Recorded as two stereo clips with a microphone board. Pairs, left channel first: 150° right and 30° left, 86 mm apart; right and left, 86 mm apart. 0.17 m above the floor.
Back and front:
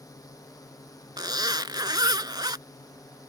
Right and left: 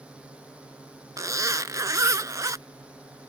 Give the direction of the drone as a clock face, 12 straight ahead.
6 o'clock.